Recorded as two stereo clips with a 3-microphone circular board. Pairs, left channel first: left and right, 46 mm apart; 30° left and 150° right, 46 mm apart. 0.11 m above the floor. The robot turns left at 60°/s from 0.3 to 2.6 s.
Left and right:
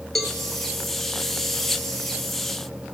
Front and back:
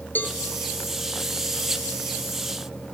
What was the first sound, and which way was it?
A cowbell, 10° left.